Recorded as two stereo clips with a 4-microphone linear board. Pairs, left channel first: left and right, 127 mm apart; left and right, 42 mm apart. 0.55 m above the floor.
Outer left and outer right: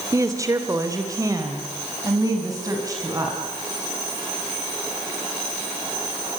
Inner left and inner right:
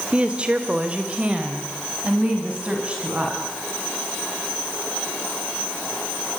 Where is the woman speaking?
25° right (ahead or behind), 2.0 m.